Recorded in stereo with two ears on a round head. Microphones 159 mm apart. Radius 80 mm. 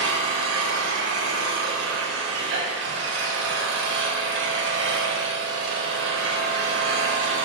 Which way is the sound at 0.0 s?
75° right (ahead or behind).